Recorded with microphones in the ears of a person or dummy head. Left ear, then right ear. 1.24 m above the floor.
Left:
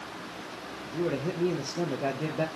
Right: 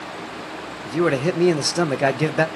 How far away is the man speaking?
About 0.5 m.